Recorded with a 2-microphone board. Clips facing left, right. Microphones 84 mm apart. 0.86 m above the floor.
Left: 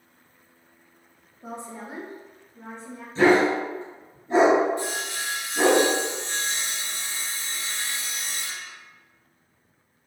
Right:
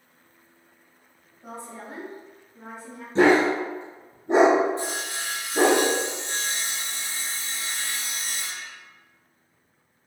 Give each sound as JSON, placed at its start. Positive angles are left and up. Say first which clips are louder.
{"t": 1.4, "sound": "a woman speaking", "louder": "left 2 dB", "side_deg": 20, "distance_m": 0.8}
{"t": 3.1, "sound": "a dog barking", "louder": "even", "side_deg": -65, "distance_m": 0.9}
{"t": 4.8, "sound": "sawing", "louder": "left 1 dB", "side_deg": -35, "distance_m": 1.6}